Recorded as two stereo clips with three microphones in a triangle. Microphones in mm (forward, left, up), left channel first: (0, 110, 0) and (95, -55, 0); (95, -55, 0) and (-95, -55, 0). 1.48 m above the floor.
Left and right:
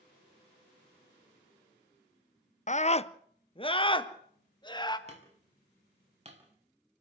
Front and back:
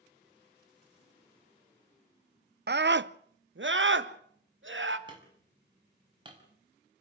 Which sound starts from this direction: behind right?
Hammering, at 5.1 s.